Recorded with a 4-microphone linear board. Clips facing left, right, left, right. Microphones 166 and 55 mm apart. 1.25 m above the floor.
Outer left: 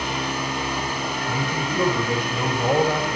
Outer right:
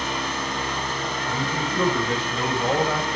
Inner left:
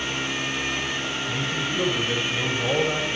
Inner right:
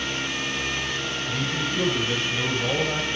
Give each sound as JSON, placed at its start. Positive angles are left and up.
{"t": 1.3, "sound": "a man speaking", "side_deg": 15, "distance_m": 6.5}